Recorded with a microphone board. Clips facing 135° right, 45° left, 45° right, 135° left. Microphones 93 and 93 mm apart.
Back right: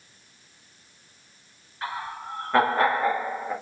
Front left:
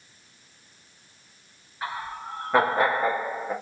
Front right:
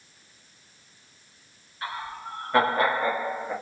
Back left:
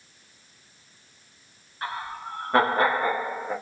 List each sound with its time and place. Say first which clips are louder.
1.8 s laughter: even, back left 2 dB; 120° left, 1.3 m